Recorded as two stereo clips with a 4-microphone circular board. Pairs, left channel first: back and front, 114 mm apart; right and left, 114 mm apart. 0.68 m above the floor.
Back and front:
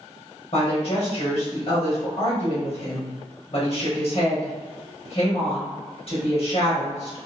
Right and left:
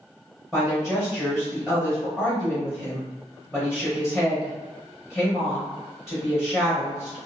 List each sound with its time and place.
0.5 s a woman speaking: 175° left, 1.1 m